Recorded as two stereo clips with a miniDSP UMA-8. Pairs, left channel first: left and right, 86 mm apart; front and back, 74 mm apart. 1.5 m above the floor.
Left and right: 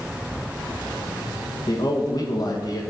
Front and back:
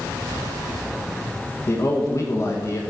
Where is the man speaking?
50° left, 1.4 m.